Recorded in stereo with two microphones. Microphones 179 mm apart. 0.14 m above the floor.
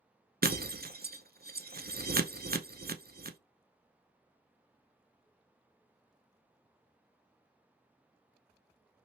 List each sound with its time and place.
0.4 s breaking glass: 60° right (ahead or behind), 0.5 m